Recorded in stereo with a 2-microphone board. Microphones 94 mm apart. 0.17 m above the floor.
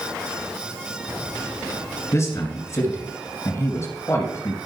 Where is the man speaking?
35° left (ahead or behind), 2.5 m.